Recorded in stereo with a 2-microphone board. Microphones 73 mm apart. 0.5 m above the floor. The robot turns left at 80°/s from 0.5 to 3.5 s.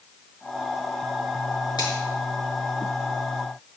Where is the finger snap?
75° left (ahead or behind), 6.5 m; by 1.9 s 85° left, 6.5 m.